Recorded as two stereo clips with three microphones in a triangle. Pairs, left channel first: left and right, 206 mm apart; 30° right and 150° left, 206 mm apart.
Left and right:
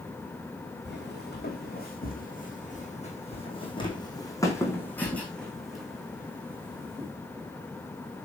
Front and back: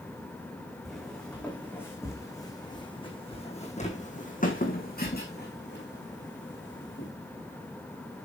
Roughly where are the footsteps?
Ahead left.